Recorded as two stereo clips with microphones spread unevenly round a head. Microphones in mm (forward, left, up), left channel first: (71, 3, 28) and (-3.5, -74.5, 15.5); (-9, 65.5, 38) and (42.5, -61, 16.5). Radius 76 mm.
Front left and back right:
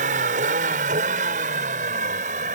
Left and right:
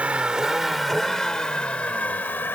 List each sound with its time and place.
0.0 s a vehicle: 150° right; by 2.5 s 170° right